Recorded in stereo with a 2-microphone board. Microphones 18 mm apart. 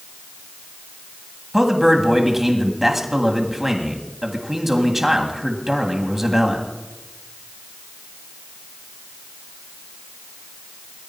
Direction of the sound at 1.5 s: 15° right (ahead or behind).